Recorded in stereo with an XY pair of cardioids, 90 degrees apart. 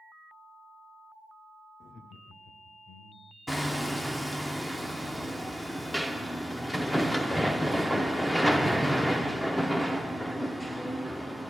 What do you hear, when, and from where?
1.8 s laughter: 55° left, 0.6 m
3.5 s hammering: 5° left, 0.8 m